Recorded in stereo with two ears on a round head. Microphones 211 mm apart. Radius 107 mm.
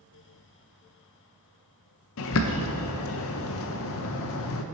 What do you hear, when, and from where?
2.2 s a bird: 65° left (ahead or behind), 0.6 m